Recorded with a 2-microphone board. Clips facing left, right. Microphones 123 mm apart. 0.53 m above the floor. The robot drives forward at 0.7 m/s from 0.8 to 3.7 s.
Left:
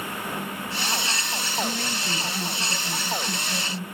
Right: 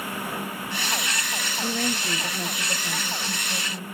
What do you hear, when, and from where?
1.6 s a woman speaking: 55° right (ahead or behind), 2.5 m; by 3.8 s 35° right (ahead or behind), 3.5 m